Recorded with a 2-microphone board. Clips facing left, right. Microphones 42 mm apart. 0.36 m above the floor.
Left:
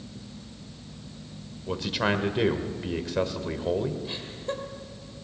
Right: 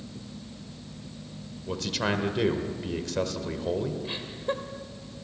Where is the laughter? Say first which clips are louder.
Right 2 dB; 20° right (ahead or behind), 1.5 m.